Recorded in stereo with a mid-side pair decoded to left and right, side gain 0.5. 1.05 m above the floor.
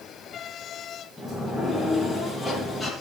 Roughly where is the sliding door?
Ahead.